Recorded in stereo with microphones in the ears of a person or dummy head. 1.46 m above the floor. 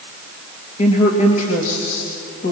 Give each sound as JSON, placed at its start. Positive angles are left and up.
{"t": 0.8, "sound": "a woman speaking", "side_deg": 45, "distance_m": 2.5}